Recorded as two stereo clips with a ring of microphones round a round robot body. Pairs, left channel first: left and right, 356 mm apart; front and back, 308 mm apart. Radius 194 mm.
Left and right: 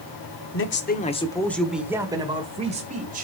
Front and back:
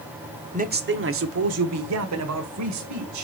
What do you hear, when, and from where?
0.5 s a man speaking: 125° left, 1.1 m; by 3.2 s 155° right, 2.5 m